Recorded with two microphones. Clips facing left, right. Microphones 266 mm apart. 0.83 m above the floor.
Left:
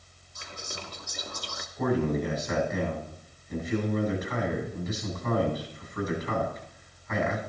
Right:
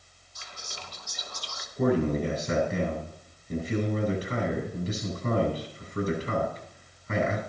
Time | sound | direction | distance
0.3 | whispering | 60° left (ahead or behind) | 1.5 m
1.8 | a man speaking | 35° right (ahead or behind) | 7.5 m